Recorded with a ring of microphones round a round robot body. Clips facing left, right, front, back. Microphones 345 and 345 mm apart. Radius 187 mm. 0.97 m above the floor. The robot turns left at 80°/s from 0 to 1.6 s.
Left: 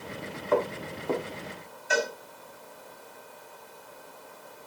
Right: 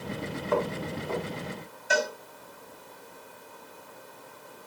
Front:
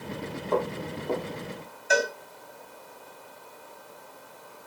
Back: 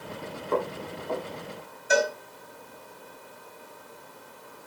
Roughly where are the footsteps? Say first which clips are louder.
Left 2 dB, front 1 dB; left.